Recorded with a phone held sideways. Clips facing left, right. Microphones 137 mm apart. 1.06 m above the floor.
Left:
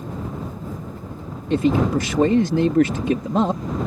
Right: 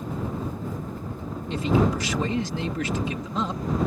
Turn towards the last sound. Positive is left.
turn(degrees=60)  # may be behind; listen again after turning